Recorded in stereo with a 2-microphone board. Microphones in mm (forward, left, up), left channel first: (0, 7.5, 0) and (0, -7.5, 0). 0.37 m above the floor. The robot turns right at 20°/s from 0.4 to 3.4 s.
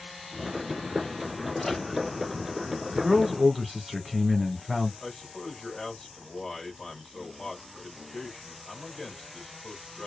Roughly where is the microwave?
Left.